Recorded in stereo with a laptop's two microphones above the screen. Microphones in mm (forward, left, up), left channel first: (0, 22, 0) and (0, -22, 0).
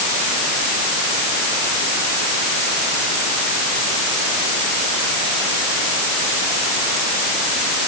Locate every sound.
Only background noise.